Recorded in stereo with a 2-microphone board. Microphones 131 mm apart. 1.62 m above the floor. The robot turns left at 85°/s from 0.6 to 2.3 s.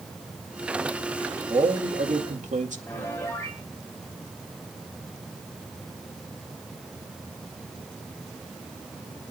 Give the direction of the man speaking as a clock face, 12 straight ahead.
1 o'clock.